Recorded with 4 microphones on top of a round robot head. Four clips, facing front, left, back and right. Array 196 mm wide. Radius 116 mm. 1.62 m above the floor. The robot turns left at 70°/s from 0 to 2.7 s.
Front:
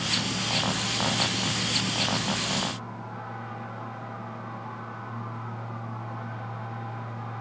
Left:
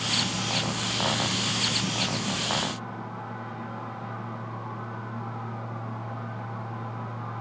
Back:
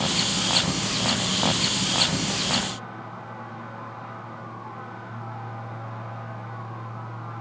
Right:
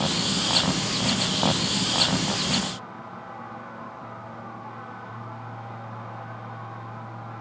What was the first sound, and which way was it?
Only background noise.